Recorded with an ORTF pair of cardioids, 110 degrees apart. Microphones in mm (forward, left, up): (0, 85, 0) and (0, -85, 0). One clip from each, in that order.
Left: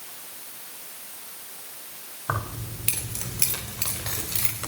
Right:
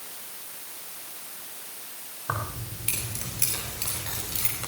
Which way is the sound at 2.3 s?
25° left.